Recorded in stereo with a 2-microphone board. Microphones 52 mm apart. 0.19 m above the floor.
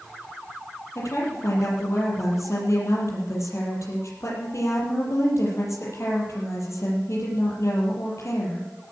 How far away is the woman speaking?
About 6.5 m.